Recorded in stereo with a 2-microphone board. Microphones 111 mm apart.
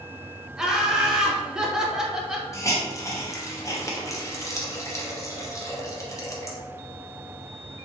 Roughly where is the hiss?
Left.